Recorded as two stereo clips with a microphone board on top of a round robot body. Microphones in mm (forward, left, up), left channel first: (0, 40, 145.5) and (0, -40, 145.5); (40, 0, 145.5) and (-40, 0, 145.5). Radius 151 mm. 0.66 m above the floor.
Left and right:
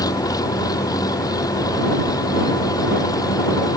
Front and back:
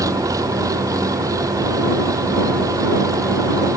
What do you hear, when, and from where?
0.0 s an engine running: 130° left